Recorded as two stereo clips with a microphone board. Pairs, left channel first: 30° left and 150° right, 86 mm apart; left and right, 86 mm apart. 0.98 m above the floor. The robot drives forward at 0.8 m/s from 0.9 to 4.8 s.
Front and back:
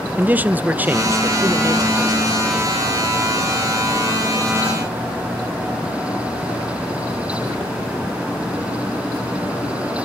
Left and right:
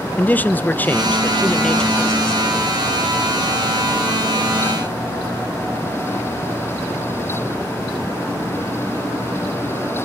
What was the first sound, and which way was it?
A man speaking, 150° left.